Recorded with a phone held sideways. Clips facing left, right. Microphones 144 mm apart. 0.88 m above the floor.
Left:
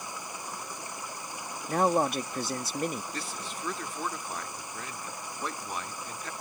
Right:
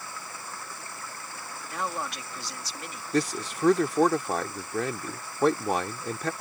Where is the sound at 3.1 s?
75° right (ahead or behind).